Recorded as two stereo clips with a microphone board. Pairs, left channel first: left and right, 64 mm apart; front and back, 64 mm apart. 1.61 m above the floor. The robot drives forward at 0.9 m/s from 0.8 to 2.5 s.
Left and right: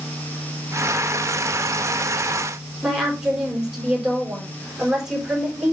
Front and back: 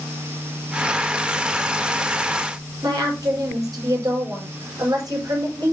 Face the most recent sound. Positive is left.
turn(degrees=-170)